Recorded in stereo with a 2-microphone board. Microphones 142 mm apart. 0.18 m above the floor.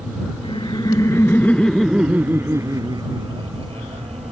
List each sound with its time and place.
0.4 s laughter: 40° left (ahead or behind); by 4.3 s 50° right (ahead or behind)